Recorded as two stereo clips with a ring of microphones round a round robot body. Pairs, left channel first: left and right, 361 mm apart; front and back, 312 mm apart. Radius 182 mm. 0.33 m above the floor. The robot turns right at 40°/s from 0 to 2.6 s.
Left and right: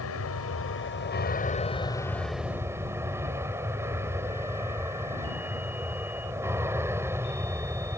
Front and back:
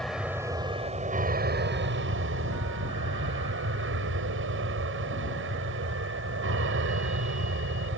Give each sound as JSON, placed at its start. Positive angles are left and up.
{"t": 0.0, "sound": "an aircraft", "azimuth_deg": 85}